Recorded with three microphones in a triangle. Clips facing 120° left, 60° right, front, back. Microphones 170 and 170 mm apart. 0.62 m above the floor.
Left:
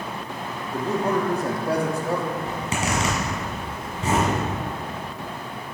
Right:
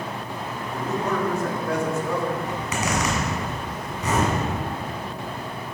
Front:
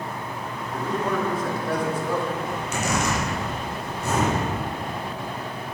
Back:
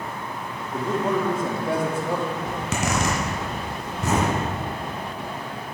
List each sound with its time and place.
0.7 s a man speaking: 140° left, 1.2 m
2.5 s a zipper: straight behind, 2 m